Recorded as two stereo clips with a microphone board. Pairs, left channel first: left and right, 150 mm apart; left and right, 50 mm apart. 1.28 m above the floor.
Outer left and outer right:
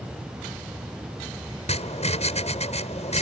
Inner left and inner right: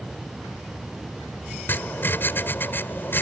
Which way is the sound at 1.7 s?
50° left (ahead or behind).